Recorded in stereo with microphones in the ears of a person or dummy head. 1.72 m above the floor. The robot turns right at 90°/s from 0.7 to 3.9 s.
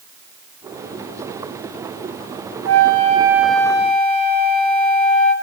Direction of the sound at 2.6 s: 80° right.